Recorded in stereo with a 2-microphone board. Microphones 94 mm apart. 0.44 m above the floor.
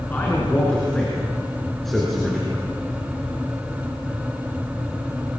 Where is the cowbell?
No cowbell in this recording.